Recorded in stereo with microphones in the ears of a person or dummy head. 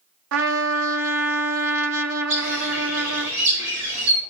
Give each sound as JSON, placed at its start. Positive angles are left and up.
{"t": 0.3, "sound": "a trumpet", "side_deg": -80, "distance_m": 0.8}
{"t": 2.3, "sound": "a bird", "side_deg": -75, "distance_m": 3.5}